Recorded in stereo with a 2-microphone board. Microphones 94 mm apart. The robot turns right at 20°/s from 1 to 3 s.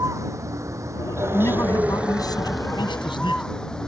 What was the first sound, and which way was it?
A vehicle, 30° right.